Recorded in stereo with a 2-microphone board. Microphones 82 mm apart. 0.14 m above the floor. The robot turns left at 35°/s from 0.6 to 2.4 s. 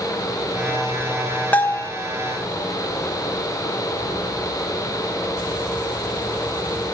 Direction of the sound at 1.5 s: 20° left (ahead or behind).